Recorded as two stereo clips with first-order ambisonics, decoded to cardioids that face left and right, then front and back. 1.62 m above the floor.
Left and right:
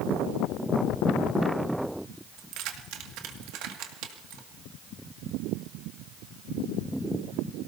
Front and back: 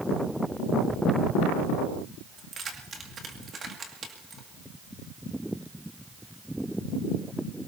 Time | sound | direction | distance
2.4 | keys jangling | 115° right | 2 m